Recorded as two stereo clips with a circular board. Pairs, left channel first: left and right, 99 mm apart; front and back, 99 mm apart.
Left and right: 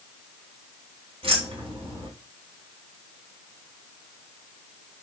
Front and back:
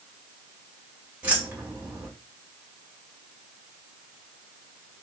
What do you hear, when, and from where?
1.2 s keys jangling: 105° right, 1.6 m